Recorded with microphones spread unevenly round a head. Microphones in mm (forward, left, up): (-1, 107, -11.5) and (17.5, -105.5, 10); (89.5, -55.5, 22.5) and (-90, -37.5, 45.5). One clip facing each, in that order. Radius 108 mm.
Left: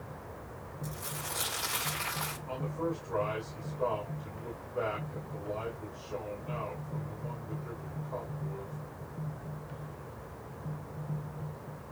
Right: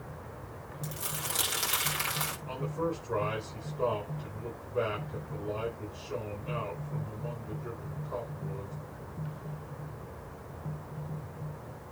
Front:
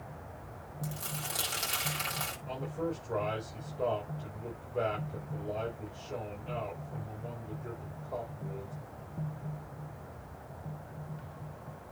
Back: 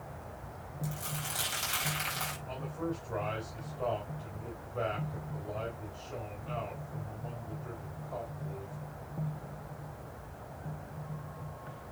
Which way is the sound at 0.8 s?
50° right.